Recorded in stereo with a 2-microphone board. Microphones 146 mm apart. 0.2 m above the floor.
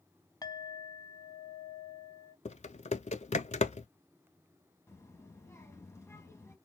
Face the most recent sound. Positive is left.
turn(degrees=20)  # may be behind; listen again after turning